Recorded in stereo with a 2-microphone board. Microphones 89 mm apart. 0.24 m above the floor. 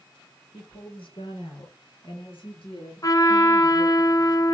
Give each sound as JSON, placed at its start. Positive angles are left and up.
{"t": 0.5, "sound": "a woman speaking", "side_deg": 75, "distance_m": 5.5}
{"t": 3.0, "sound": "a trumpet", "side_deg": 40, "distance_m": 1.2}